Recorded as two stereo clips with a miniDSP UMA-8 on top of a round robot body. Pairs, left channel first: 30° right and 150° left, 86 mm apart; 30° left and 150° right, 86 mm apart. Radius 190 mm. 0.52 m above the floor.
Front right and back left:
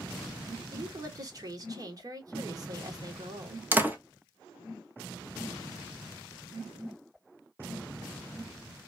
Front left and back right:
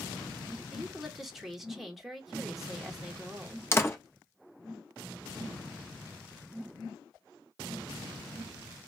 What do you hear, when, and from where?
0.7 s a woman speaking: 120° left, 1.4 m
3.7 s a door slam: 85° left, 1.0 m